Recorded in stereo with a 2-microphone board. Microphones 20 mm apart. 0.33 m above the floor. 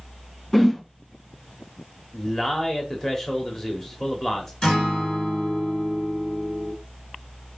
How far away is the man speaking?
About 0.9 m.